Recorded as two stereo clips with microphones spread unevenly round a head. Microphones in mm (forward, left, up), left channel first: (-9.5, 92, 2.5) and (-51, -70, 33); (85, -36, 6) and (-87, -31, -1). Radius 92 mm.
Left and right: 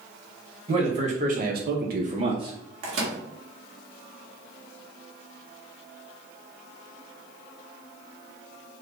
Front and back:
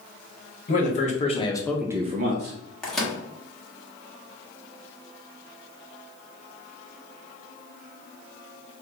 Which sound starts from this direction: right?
A microwave, at 2.8 s.